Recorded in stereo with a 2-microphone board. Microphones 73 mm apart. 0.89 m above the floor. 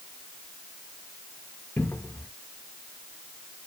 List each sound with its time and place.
1.8 s a cupboard door: 25° left (ahead or behind), 0.5 m